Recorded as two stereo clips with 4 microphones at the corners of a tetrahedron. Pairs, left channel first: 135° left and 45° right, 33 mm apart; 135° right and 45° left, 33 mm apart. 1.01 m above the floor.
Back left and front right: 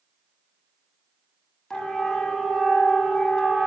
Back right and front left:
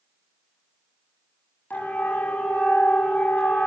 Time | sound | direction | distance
1.7 | a siren | 155° right | 8 m